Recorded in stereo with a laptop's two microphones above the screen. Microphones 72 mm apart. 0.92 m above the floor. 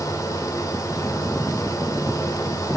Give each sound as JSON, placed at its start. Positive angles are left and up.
{"t": 0.0, "sound": "a fan", "side_deg": 55, "distance_m": 1.9}